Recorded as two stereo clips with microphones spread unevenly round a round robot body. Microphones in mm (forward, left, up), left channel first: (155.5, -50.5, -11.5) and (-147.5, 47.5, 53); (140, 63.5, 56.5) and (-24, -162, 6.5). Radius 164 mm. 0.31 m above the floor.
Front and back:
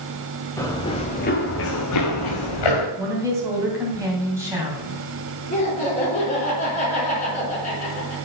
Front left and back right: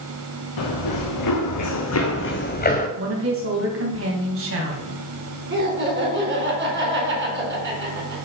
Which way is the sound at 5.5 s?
80° right.